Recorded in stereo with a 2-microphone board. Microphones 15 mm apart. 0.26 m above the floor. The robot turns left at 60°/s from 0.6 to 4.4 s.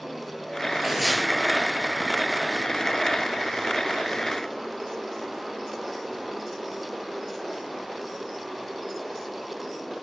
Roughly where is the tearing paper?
Right.